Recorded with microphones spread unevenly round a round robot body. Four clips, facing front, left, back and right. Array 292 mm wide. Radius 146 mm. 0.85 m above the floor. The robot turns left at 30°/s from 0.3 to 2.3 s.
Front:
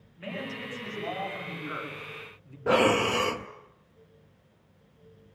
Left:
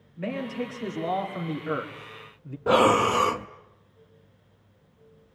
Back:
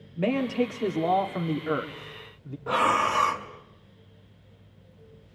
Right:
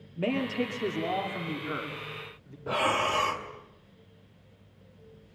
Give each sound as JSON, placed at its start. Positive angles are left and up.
{"t": 0.2, "sound": "a man speaking", "azimuth_deg": -155, "distance_m": 2.5}
{"t": 2.7, "sound": "breathing", "azimuth_deg": 60, "distance_m": 0.5}